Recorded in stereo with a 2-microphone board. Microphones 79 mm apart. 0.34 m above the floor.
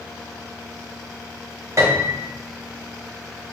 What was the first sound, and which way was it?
A piano, 50° right (ahead or behind).